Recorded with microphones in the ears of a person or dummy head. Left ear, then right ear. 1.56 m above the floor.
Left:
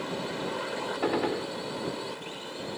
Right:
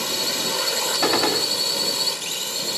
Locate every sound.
0.0 s a drone: 80° right
1.0 s a gunshot: 65° right (ahead or behind)